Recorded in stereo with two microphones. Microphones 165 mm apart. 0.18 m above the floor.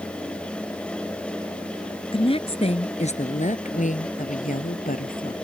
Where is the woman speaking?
30° left (ahead or behind); by 5.3 s 60° left (ahead or behind).